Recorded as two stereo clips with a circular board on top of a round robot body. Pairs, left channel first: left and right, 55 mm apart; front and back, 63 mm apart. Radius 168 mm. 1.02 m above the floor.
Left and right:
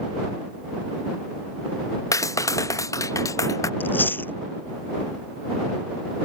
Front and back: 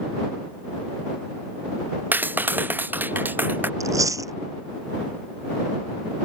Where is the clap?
120° left.